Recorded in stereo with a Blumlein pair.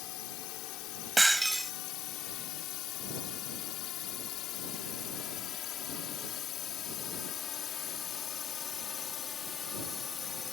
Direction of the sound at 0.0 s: 40° left.